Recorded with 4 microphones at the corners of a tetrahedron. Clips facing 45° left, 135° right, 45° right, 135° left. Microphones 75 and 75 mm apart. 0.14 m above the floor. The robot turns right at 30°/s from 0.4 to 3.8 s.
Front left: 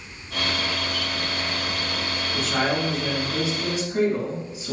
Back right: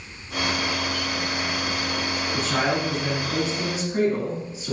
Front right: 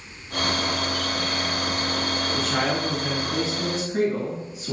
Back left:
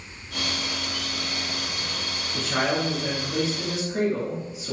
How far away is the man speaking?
About 1.4 m.